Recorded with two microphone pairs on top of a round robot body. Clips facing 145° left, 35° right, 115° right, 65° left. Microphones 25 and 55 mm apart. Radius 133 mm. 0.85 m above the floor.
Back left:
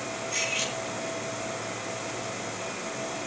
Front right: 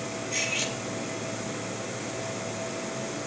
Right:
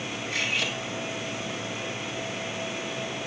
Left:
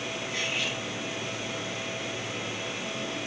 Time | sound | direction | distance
0.3 | cutlery clinking | 125° right | 3.5 m